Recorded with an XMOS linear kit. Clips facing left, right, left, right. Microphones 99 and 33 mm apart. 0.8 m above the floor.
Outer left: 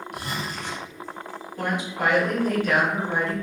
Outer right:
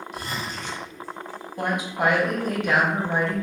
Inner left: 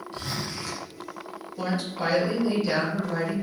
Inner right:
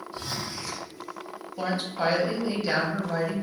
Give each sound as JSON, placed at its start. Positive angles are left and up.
{"t": 0.1, "sound": "a zipper", "side_deg": 60, "distance_m": 0.7}
{"t": 1.6, "sound": "a woman speaking", "side_deg": -20, "distance_m": 0.9}